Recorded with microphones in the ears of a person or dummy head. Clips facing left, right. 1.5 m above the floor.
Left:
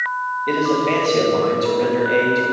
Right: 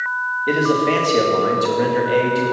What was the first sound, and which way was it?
A man speaking, 10° right (ahead or behind).